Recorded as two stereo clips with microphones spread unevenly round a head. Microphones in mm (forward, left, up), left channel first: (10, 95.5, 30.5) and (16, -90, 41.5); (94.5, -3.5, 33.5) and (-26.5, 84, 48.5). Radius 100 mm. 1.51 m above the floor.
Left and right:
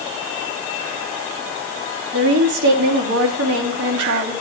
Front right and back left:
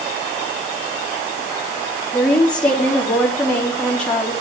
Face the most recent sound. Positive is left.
turn(degrees=-120)